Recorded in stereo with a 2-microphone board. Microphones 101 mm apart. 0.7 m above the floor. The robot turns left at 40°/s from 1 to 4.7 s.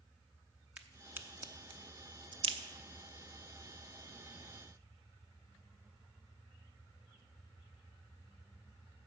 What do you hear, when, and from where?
0.8 s a crack: 15° right (ahead or behind), 0.6 m; by 2.6 s 65° right (ahead or behind), 0.6 m